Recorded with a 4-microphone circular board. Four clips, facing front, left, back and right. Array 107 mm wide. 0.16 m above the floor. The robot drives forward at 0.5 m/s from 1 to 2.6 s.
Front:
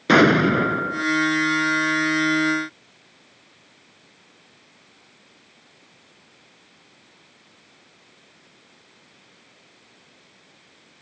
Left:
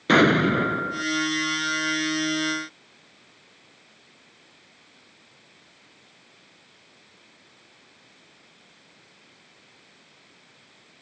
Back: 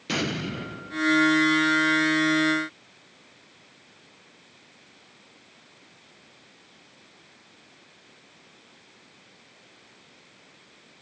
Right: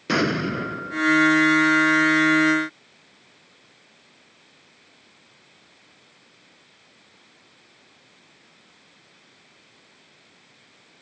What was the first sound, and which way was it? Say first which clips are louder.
An explosion: left 5 dB, front 15 dB; 20° left.